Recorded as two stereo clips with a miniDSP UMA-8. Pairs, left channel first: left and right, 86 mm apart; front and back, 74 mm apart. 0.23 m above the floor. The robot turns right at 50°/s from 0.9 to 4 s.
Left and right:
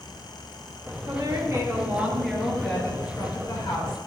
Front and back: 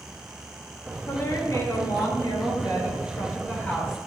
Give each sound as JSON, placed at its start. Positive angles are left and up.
{"t": 1.1, "sound": "a woman speaking", "azimuth_deg": -60, "distance_m": 4.5}